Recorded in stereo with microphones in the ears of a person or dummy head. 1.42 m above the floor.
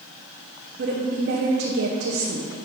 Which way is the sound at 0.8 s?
65° right (ahead or behind).